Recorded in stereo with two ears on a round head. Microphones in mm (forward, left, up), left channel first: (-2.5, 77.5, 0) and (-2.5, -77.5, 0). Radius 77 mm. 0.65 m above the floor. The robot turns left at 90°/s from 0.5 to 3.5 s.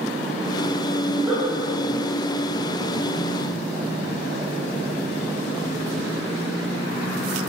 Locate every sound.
1.1 s a giggle: 15° left (ahead or behind), 2.5 m; by 1.4 s 20° right (ahead or behind), 2.5 m